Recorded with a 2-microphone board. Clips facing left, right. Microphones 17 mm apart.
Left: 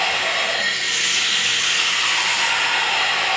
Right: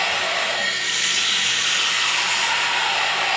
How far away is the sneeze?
I don't hear a sneeze.